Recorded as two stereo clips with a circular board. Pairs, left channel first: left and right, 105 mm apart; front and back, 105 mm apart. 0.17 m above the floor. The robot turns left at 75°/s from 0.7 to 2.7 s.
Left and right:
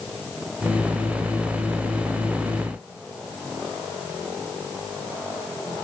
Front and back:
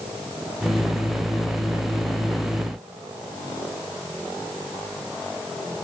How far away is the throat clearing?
I don't hear throat clearing.